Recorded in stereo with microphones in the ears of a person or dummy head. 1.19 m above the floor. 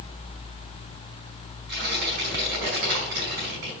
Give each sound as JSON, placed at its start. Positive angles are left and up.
{"t": 1.7, "sound": "tearing paper", "side_deg": -60, "distance_m": 5.0}